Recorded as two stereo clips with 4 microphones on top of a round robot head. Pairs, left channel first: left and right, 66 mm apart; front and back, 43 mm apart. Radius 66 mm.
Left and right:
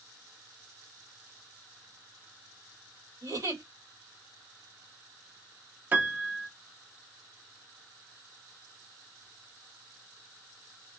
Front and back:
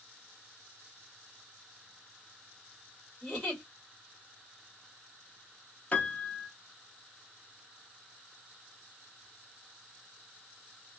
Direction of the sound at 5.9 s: 40° right.